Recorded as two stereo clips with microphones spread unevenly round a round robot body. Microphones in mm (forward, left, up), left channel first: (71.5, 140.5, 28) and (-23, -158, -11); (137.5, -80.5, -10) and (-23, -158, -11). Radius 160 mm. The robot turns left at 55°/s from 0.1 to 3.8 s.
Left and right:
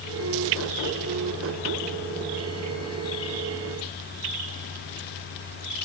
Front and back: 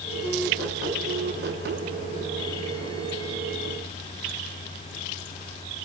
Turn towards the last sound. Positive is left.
No sound to turn to.